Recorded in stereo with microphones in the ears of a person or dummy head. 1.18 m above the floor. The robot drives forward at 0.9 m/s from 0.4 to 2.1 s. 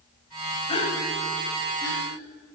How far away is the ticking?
No ticking in this recording.